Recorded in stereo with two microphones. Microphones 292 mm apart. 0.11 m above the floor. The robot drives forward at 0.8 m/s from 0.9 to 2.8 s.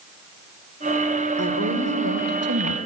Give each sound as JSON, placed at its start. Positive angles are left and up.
{"t": 1.4, "sound": "a woman speaking", "side_deg": -55, "distance_m": 2.5}